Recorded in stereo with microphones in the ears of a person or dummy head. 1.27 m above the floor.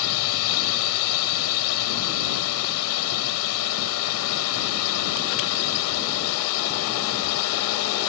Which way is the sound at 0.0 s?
80° left.